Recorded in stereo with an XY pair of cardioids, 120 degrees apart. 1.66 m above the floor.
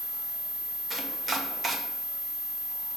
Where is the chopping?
25° right, 1.3 m.